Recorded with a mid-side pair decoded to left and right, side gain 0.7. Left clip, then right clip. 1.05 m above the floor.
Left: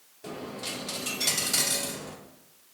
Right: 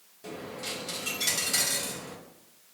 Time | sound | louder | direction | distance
0.2 | a dropped coin | left 1 dB | 10° left | 1.0 m